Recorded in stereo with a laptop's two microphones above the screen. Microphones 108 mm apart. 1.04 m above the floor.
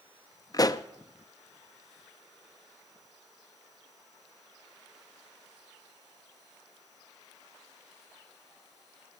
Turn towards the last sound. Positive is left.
turn(degrees=35)  # may be behind; listen again after turning